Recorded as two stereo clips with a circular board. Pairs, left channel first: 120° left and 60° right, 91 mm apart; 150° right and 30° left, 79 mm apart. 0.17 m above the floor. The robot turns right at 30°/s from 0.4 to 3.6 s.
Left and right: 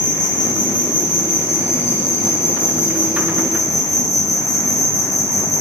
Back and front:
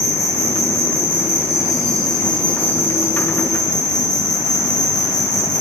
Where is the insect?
75° left, 9.5 m; by 5.6 s 175° left, 9.5 m.